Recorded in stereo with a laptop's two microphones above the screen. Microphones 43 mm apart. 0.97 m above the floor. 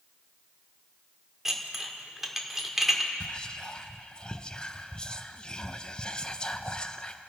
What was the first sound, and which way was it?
Dishes clattering, 5° right (ahead or behind).